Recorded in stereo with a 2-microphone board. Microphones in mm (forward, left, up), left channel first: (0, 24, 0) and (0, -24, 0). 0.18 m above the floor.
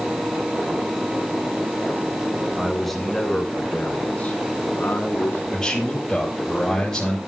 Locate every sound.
2.6 s a man speaking: centre (ahead or behind), 1.7 m; by 5.4 s 50° left (ahead or behind), 1.9 m
5.5 s a man speaking: 15° left (ahead or behind), 4.5 m